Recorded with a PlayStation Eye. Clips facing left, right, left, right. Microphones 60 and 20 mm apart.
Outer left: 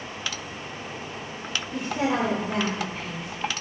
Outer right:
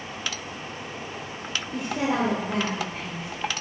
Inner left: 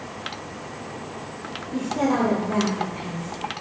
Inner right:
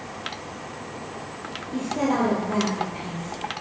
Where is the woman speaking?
25° right (ahead or behind), 1.6 m; by 3.3 s 5° right (ahead or behind), 2.5 m.